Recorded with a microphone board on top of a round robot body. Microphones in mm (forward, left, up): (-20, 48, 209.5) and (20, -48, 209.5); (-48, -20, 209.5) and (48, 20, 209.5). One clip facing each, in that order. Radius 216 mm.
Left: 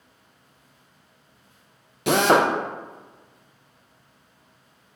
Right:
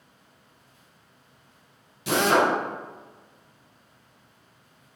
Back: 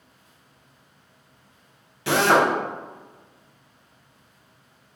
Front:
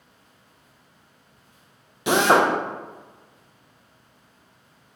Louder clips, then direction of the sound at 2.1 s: Left 3 dB, front 1 dB; 95° left.